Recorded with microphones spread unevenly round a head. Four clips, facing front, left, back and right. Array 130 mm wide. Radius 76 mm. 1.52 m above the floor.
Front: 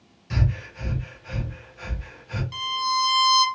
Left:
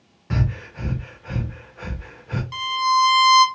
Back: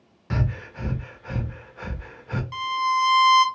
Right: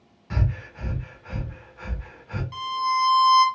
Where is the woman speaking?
No woman speaking in this recording.